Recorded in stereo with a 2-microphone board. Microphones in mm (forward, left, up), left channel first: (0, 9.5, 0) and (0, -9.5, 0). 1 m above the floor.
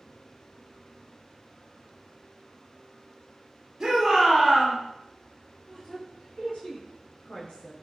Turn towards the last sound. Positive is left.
turn(degrees=70)  # may be behind; listen again after turning